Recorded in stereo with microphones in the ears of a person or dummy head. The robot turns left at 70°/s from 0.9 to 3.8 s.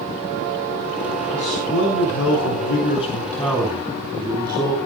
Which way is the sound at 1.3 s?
160° left.